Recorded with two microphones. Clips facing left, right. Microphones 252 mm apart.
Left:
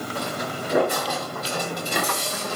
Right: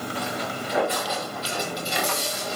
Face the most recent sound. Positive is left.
turn(degrees=60)  # may be behind; listen again after turning